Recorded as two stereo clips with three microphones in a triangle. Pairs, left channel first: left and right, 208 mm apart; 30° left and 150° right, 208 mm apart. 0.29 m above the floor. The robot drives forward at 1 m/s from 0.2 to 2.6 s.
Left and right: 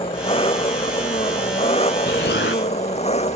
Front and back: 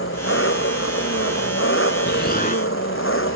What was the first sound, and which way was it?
An engine running, 25° left.